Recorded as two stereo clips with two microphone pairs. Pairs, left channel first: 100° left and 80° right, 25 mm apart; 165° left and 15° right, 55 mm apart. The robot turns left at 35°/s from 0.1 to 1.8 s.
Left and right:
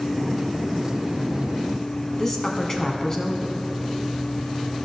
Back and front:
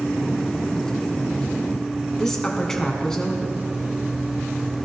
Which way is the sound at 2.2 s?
105° left.